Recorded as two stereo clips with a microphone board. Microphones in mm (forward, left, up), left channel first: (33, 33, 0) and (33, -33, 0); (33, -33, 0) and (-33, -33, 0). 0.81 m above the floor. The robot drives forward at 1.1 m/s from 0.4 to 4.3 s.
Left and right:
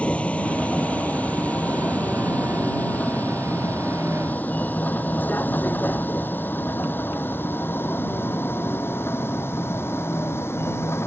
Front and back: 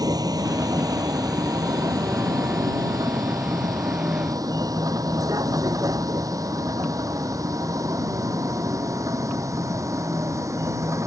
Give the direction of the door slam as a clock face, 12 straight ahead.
I don't hear a door slam.